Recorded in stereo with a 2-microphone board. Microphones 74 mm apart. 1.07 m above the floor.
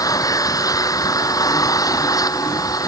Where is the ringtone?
I don't hear a ringtone.